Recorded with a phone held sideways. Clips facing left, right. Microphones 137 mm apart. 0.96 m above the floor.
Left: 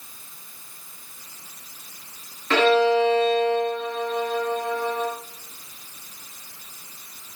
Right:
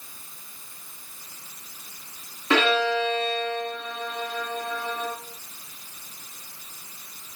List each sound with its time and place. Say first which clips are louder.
2.5 s a violin: left 5 dB; 15° right (ahead or behind), 3 m